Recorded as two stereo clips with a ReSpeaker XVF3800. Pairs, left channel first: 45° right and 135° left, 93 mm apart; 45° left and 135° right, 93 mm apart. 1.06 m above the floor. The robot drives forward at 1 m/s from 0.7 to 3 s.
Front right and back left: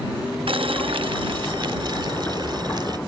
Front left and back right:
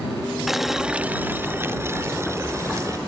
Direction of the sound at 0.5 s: 140° left.